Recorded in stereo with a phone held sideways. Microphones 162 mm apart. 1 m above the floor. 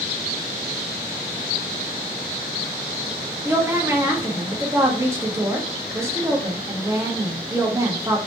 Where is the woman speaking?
15° right (ahead or behind), 1.2 m.